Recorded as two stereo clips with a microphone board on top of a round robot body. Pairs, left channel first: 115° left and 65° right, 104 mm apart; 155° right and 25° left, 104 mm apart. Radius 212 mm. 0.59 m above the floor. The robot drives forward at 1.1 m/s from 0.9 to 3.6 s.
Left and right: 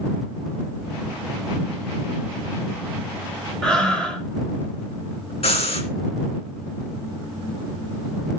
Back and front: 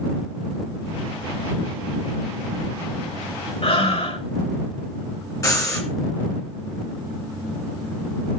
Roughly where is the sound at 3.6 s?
Behind.